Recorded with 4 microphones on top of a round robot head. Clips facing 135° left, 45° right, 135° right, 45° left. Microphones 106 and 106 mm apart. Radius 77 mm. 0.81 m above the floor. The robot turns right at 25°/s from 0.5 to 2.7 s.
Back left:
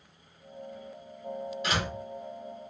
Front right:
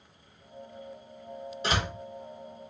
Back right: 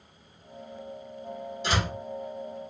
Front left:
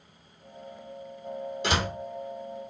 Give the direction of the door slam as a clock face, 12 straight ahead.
12 o'clock.